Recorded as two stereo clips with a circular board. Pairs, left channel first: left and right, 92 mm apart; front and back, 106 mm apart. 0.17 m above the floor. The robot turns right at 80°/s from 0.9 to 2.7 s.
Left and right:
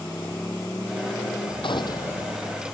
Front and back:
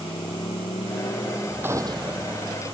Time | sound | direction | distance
0.0 | a motorcycle | 30° left | ?
1.6 | a gunshot | 110° left | ?